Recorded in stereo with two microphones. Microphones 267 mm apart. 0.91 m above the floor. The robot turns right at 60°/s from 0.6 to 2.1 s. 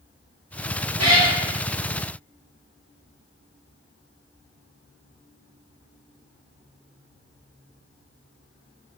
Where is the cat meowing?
80° right, 1.0 m; by 1.4 s 60° right (ahead or behind), 1.0 m.